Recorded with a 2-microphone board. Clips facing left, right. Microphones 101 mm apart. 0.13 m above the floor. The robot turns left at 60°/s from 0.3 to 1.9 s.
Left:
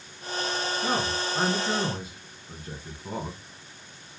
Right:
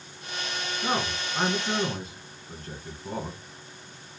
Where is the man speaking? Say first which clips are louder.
Right 1 dB; 20° right (ahead or behind), 1.4 m; by 3.4 s 5° left (ahead or behind), 1.4 m.